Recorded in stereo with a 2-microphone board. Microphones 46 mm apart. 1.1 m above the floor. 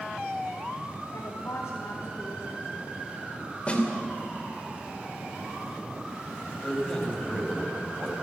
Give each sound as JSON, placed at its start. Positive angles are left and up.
{"t": 1.1, "sound": "a woman speaking", "side_deg": 80, "distance_m": 3.0}
{"t": 3.7, "sound": "a snare drum", "side_deg": 25, "distance_m": 3.0}
{"t": 6.6, "sound": "a man speaking", "side_deg": 15, "distance_m": 5.5}